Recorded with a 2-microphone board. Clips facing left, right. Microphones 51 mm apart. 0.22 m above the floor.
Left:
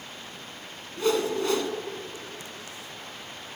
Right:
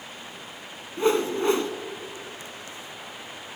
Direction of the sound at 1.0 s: 25° right (ahead or behind).